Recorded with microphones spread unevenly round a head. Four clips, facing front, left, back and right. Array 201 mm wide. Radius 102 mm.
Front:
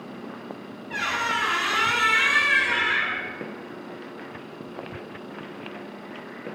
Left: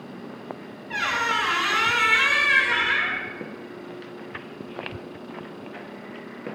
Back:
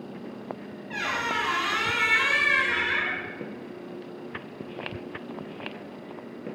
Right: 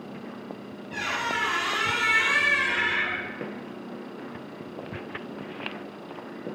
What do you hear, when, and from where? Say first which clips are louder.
0.9 s a squeak: left 4 dB, front 2 dB; 80° left, 1.5 m